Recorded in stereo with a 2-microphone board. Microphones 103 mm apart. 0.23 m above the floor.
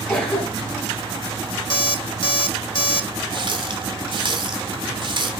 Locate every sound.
0.1 s a cough: 5° left (ahead or behind), 1.8 m
1.7 s an alarm clock: 55° left (ahead or behind), 0.5 m
3.3 s a running tap: 50° right (ahead or behind), 1.3 m